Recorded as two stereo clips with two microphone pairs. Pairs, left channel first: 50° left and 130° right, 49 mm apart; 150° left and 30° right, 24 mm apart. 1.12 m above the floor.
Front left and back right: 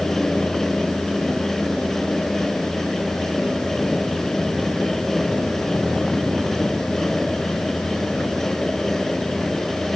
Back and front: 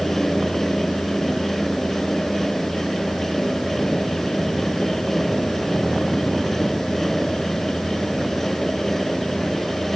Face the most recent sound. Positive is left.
No sound to turn to.